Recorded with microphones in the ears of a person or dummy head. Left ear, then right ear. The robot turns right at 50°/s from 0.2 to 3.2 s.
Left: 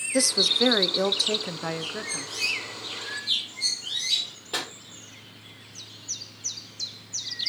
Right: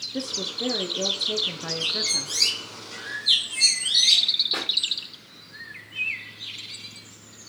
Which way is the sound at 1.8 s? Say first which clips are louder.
Right 8 dB; 115° right.